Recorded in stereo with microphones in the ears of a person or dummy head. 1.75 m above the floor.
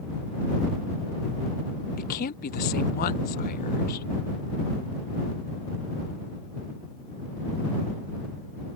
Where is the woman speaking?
50° left (ahead or behind).